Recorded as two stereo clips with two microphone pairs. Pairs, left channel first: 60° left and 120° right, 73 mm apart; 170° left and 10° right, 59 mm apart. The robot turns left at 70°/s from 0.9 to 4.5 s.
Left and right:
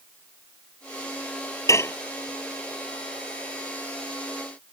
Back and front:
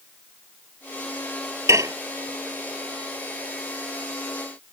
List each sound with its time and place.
1.7 s dishes clattering: 20° left; by 1.9 s straight ahead